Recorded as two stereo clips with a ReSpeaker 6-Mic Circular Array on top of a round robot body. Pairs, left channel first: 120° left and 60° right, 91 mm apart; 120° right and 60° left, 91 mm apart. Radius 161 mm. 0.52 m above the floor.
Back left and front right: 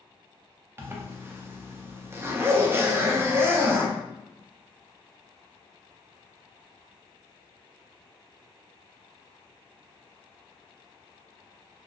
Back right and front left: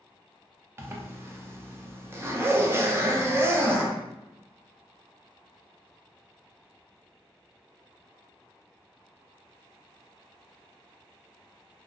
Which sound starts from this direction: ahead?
A zipper, at 0.8 s.